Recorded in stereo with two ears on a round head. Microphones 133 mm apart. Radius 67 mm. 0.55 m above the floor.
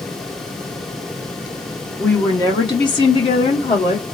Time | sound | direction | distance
2.0 | a woman speaking | 15° left (ahead or behind) | 0.9 m